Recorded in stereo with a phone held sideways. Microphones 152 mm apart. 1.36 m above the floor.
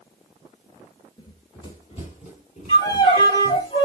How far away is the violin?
About 2.5 m.